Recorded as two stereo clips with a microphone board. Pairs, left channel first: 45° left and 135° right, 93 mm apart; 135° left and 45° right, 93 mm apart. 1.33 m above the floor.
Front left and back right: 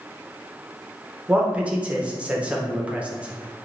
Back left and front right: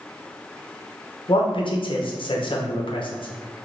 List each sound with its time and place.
1.3 s a man speaking: 150° left, 0.5 m